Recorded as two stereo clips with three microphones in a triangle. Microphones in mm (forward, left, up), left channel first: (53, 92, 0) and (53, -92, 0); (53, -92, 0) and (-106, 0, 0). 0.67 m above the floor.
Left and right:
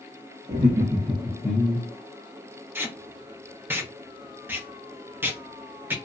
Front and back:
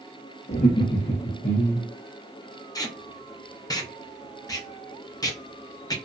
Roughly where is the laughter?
Ahead right.